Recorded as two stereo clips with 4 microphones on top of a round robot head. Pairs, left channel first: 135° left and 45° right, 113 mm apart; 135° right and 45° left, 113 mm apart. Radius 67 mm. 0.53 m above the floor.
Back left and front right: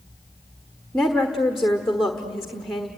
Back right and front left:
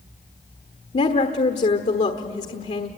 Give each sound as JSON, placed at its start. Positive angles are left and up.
{"t": 0.9, "sound": "a woman speaking", "azimuth_deg": -135, "distance_m": 1.3}